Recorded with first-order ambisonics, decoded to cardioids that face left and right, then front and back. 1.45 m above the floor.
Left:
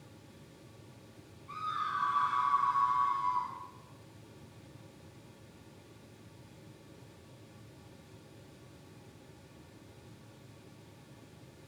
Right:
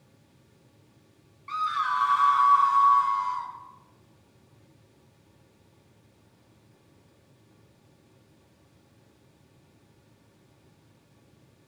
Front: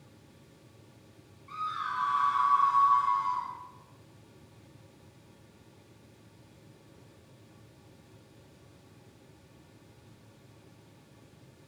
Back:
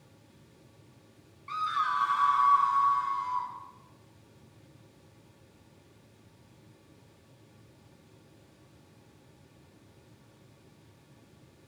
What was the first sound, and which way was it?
A scream, 125° right.